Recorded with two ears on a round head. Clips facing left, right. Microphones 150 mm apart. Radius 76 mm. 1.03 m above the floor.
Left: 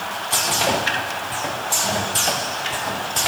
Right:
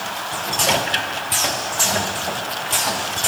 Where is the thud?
No thud in this recording.